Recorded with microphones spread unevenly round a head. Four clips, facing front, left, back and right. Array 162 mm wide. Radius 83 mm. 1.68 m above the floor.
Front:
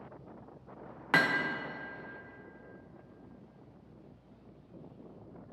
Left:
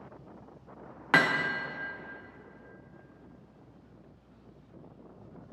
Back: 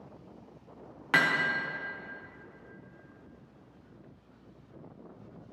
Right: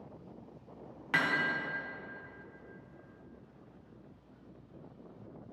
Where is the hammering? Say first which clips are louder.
Left 6 dB, back 1 dB; 90° left, 0.8 m.